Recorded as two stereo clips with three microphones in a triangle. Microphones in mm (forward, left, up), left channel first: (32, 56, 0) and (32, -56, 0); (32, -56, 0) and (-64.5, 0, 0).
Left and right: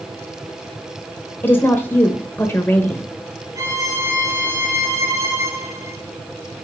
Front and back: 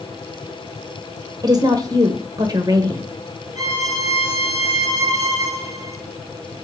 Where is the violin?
150° right, 2.0 m.